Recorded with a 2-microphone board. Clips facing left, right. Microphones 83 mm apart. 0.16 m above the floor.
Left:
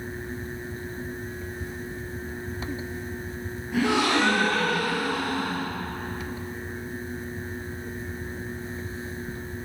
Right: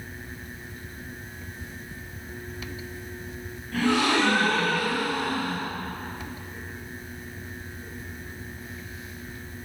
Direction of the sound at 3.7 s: 10° left (ahead or behind).